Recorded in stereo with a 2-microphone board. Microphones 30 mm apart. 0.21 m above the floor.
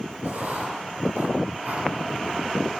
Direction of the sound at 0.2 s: 60° right (ahead or behind).